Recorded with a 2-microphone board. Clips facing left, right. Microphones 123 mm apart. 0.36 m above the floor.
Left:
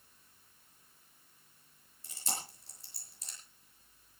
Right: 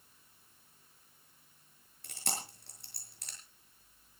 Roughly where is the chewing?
Right.